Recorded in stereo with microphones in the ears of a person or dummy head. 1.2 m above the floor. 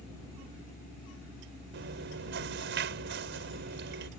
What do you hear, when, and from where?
1.7 s chewing: 55° right (ahead or behind)